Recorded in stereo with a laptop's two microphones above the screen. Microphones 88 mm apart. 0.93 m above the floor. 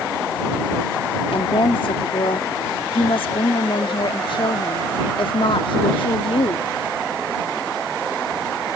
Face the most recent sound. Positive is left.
turn(degrees=70)  # may be behind; listen again after turning